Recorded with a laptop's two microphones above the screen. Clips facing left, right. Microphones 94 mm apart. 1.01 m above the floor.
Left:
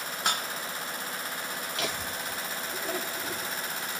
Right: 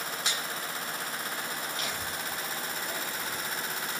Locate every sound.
0.2 s dishes clattering: 50° left (ahead or behind), 0.7 m
1.8 s laughter: 80° left, 2.5 m